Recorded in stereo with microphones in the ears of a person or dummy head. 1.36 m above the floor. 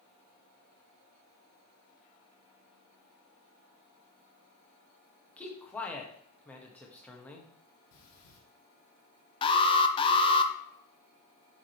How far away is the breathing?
About 1.6 m.